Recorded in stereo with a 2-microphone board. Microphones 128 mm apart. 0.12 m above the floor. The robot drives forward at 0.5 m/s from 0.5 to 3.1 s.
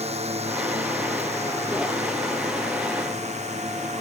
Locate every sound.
0.0 s a drone: 50° right (ahead or behind); by 4.0 s 55° right (ahead or behind)